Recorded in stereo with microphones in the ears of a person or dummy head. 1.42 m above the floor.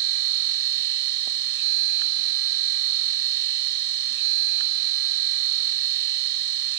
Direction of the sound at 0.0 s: 65° right (ahead or behind).